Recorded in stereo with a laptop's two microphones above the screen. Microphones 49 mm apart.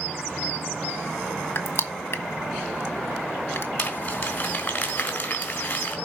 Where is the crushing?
50° left (ahead or behind), 1.6 m.